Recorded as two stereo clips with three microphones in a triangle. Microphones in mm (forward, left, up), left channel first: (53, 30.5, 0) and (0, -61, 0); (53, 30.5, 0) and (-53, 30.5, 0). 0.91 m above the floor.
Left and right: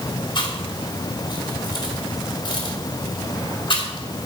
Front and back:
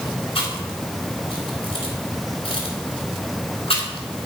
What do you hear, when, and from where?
0.3 s chewing: 20° left, 3 m